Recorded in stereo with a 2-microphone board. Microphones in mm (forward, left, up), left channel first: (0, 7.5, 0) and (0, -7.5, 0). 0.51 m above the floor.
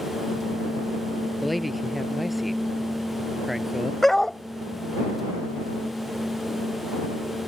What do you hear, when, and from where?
1.4 s a man speaking: 5° right (ahead or behind); by 3.9 s 15° right (ahead or behind)
4.0 s a dog barking: 25° left (ahead or behind)